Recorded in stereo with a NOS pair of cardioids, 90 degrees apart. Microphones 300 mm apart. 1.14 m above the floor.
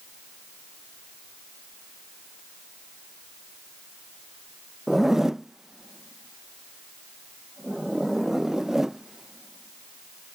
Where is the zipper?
Straight ahead.